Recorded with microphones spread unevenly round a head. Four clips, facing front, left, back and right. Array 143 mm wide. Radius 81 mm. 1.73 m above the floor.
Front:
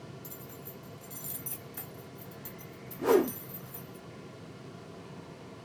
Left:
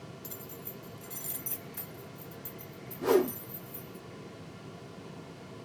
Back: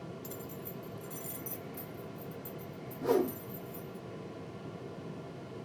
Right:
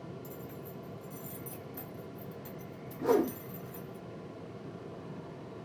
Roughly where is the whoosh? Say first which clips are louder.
Left 2 dB, front 4 dB; ahead left.